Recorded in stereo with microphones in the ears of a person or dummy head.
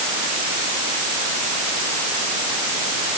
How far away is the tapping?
No tapping in this recording.